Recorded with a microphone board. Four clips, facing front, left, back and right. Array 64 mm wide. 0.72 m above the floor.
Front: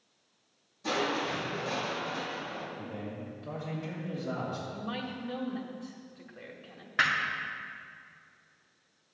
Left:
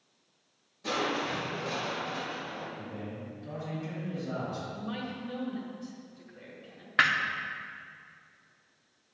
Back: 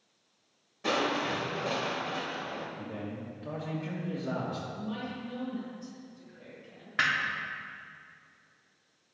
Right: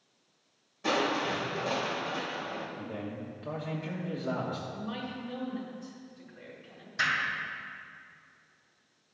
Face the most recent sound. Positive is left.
turn(degrees=85)